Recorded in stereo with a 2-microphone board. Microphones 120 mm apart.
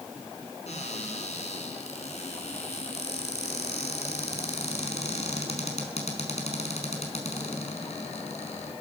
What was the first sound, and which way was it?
A cupboard door, 70° left (ahead or behind).